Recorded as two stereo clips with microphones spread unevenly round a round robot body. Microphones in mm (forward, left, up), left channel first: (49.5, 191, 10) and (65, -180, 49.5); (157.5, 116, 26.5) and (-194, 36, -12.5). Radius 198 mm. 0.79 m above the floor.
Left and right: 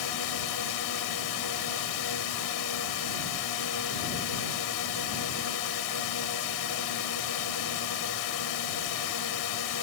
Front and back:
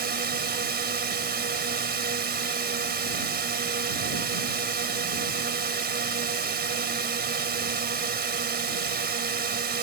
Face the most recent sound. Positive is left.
turn(degrees=130)